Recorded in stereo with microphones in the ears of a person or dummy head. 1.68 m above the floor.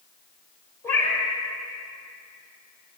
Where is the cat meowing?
15° left (ahead or behind), 2 m.